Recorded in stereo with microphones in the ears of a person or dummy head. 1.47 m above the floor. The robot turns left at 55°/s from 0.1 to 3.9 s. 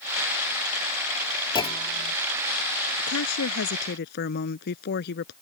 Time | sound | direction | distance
1.6 | a clunk | 155° left | ?
3.0 | a woman speaking | 105° left | ?